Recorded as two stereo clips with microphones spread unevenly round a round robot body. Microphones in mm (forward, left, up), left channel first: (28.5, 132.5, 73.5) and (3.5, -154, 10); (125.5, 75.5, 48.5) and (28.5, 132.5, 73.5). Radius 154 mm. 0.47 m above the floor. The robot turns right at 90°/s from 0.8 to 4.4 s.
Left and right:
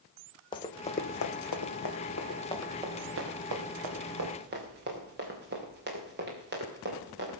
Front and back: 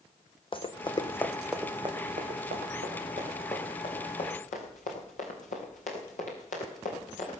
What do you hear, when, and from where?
0.5 s running footsteps: 15° left, 1.6 m; by 7.4 s 40° right, 5.5 m